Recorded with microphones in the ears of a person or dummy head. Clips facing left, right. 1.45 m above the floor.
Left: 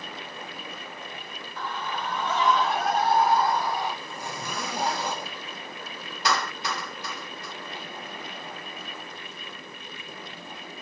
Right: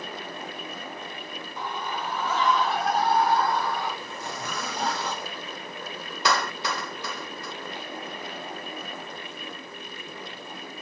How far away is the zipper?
About 3 m.